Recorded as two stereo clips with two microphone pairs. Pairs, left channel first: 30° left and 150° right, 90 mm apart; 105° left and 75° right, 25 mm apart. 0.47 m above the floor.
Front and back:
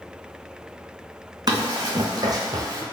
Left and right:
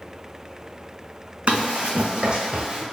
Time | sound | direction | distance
1.5 | running footsteps | 105° right | 1.4 m